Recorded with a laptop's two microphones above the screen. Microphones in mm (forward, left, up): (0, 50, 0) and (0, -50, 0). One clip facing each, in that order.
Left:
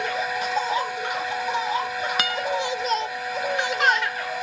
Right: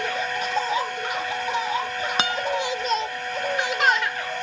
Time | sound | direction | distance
0.0 | a fan | 5° left (ahead or behind) | ?
2.2 | a guitar | 30° right (ahead or behind) | ?